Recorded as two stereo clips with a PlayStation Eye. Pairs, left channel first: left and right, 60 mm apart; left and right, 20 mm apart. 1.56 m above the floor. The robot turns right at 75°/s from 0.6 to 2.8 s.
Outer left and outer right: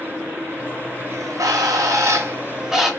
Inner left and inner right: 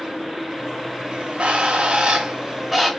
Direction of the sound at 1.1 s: 130° right.